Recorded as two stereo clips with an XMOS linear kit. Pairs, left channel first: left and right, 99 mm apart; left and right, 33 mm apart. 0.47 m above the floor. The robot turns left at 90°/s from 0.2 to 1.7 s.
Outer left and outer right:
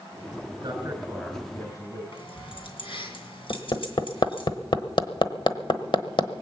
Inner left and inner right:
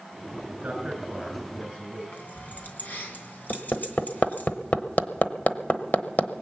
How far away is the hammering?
About 1.0 m.